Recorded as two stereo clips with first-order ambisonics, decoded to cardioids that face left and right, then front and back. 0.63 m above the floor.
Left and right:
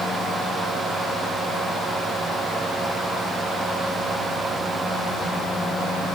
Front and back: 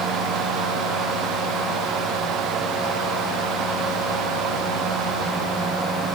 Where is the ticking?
I don't hear ticking.